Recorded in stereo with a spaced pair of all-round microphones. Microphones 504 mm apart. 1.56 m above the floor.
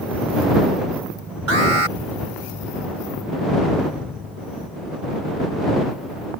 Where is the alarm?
85° right.